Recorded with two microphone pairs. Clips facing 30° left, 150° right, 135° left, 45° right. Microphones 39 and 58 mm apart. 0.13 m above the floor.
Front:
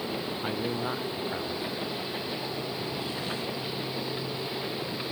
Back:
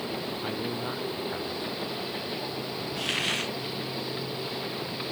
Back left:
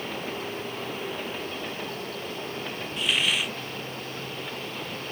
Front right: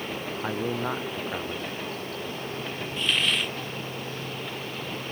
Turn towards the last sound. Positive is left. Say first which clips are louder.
# back 4 dB, even
turn(degrees=-140)